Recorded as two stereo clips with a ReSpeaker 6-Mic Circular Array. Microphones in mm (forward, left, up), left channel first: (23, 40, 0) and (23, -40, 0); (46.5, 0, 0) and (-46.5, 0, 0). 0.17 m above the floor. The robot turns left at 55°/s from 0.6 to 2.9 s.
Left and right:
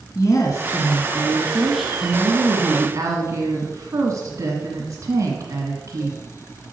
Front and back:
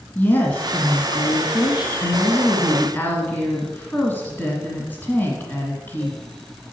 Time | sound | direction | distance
0.1 | a woman speaking | 65° left | 1.5 m